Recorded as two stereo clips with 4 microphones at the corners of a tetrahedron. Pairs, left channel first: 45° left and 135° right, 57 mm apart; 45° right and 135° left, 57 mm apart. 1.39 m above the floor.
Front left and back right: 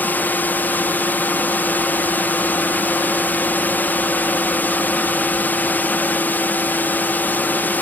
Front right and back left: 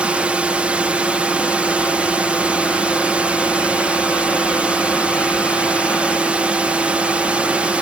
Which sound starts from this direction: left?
A drone, at 0.0 s.